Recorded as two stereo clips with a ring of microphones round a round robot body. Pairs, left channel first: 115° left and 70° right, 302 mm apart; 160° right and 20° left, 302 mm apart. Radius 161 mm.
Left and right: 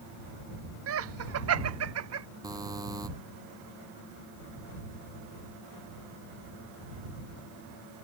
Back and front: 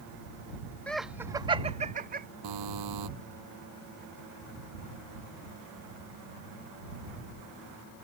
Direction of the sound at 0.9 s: 75° right.